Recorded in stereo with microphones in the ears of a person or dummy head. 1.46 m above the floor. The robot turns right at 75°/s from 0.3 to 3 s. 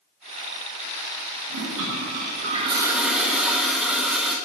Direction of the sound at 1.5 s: 115° right.